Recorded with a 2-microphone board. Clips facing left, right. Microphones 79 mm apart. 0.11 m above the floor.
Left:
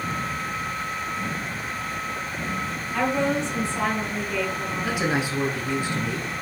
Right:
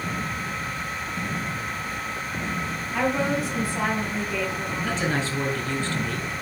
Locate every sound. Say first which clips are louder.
2.9 s a woman speaking: left 1 dB; 5° right (ahead or behind), 2 m
4.8 s a woman speaking: left 2 dB; 15° left (ahead or behind), 1.3 m